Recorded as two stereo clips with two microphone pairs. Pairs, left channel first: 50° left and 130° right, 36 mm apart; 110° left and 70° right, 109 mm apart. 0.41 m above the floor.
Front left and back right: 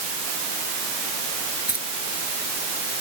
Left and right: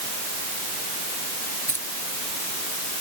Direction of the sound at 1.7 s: Straight behind.